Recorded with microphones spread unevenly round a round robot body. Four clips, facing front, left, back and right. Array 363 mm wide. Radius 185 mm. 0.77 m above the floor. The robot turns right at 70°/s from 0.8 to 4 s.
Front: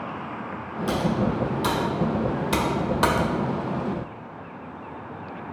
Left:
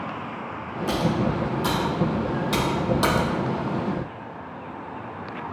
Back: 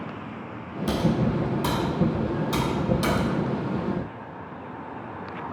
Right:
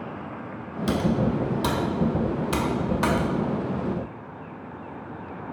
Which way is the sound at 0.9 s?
135° right.